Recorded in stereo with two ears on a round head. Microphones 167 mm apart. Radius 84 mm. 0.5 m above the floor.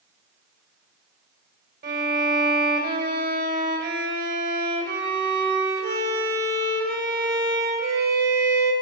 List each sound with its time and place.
1.8 s a violin: 55° right (ahead or behind), 2.5 m